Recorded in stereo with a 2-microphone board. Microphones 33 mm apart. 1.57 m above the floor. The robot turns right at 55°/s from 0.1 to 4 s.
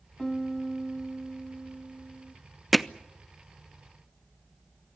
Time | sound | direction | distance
0.2 | a piano | 165° left | 0.7 m
2.7 | hammering | centre (ahead or behind) | 0.6 m